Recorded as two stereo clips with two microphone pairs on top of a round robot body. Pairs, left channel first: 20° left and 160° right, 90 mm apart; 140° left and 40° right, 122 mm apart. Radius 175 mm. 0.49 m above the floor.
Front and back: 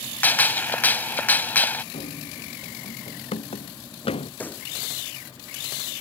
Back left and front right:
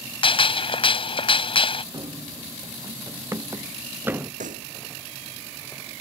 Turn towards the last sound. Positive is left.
turn(degrees=-50)